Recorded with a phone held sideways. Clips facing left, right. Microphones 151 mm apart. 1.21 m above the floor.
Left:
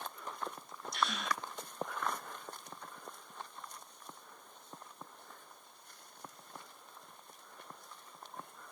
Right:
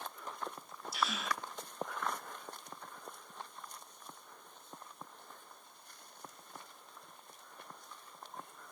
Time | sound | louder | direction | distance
0.9 | a gasp | left 1 dB | 5° right (ahead or behind) | 0.9 m